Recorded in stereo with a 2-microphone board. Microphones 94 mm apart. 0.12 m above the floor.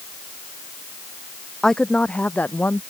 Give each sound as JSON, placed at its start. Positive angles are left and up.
{"t": 1.6, "sound": "a woman speaking", "side_deg": 5}